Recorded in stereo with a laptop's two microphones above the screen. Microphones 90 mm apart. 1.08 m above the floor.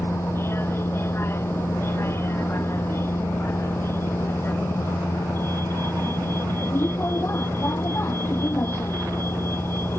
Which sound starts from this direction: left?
A vehicle, at 0.0 s.